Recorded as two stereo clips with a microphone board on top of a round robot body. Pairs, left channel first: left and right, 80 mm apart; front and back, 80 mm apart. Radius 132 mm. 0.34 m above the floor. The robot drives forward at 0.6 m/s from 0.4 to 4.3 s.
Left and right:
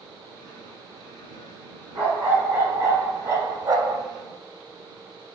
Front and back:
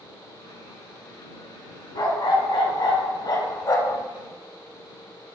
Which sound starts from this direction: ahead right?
A dog barking, at 1.9 s.